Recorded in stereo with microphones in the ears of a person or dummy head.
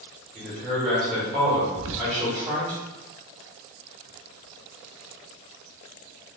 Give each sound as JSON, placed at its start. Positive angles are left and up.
{"t": 0.3, "sound": "a man speaking", "side_deg": -10, "distance_m": 1.6}
{"t": 1.7, "sound": "whispering", "side_deg": -75, "distance_m": 0.6}